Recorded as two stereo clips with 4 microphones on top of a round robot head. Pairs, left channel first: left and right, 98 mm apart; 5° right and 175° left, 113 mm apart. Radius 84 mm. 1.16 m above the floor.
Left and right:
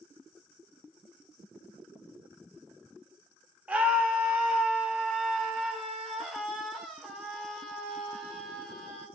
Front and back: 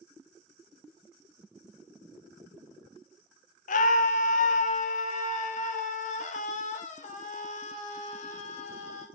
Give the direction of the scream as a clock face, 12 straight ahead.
12 o'clock.